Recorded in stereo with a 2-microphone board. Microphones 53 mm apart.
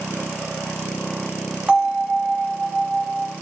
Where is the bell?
20° right (ahead or behind), 1.1 m.